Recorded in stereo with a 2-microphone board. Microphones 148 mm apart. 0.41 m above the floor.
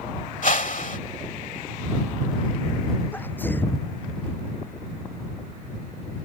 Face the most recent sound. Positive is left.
turn(degrees=15)  # may be behind; listen again after turning